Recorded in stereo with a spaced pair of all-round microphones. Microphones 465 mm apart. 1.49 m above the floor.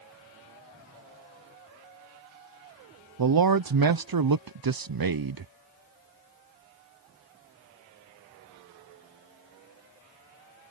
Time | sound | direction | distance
3.2 | a man speaking | 50° right (ahead or behind) | ?